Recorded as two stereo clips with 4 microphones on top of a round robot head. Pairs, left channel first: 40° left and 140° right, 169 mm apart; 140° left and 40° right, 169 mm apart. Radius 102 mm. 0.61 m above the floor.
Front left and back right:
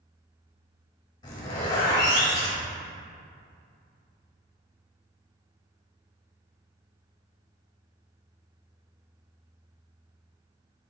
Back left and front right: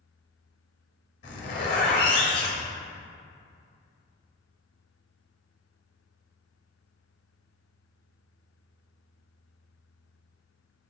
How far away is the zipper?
About 0.9 m.